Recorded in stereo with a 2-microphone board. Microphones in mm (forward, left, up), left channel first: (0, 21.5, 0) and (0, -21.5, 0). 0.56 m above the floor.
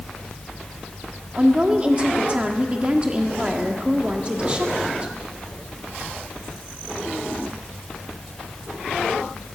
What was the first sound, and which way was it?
A woman speaking, 25° right (ahead or behind).